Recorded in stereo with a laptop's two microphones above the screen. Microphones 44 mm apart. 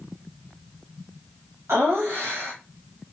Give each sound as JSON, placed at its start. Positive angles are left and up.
{"t": 1.7, "sound": "laughter", "side_deg": -75, "distance_m": 0.8}